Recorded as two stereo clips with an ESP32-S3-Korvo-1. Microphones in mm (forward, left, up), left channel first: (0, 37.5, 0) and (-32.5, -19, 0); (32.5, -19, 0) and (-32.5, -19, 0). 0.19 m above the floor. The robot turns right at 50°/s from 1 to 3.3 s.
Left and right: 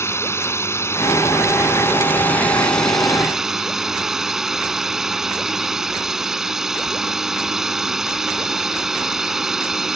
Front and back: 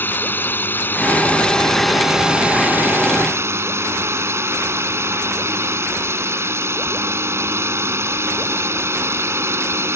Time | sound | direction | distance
0.0 | a drone | 45° left | ?